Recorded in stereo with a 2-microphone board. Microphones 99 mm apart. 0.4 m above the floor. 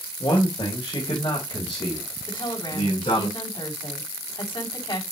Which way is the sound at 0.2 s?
50° left (ahead or behind).